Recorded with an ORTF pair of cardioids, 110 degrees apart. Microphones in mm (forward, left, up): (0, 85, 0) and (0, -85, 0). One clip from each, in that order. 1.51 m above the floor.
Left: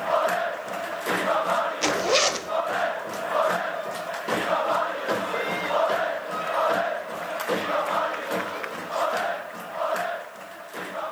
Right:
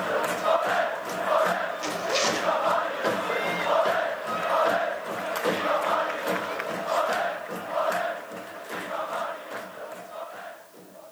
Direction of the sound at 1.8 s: 55° left.